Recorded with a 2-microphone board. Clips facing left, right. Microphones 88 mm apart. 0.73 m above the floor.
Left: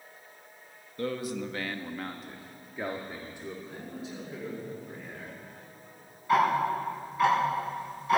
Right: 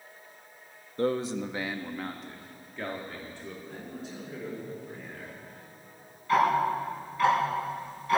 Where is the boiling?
I don't hear boiling.